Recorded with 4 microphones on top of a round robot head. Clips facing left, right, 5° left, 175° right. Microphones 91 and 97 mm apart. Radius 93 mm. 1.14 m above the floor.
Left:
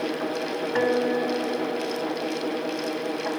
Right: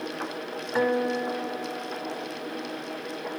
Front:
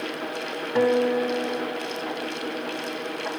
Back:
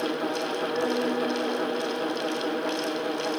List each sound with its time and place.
0.8 s a guitar: 10° right, 1.1 m